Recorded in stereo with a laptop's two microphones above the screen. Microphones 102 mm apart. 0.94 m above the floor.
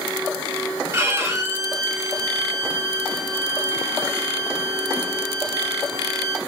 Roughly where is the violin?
Right.